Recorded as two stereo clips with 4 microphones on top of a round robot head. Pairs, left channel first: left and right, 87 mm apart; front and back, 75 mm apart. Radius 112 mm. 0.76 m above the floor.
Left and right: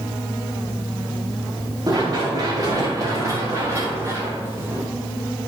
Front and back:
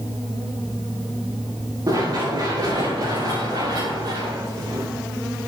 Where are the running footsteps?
135° right, 6.5 m; by 4.9 s 155° right, 7 m.